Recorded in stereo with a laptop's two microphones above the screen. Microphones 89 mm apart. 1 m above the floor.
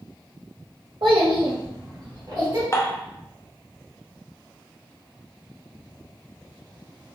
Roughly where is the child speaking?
Right.